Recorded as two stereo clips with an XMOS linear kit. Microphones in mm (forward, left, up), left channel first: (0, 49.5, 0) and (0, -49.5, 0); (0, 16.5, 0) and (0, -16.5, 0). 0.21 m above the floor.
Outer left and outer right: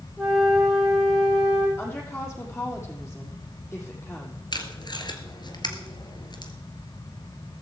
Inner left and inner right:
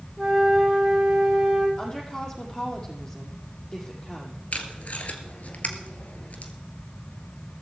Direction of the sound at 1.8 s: 25° left (ahead or behind).